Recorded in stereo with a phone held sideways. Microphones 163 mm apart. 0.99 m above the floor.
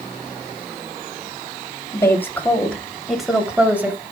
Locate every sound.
1.9 s a woman speaking: 20° left (ahead or behind), 3 m; by 4.0 s 15° right (ahead or behind), 3 m